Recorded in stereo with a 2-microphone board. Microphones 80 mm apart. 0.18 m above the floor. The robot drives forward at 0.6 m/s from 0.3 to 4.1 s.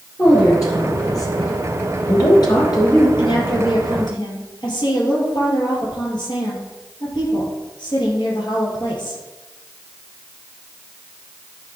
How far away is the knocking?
No knocking in this recording.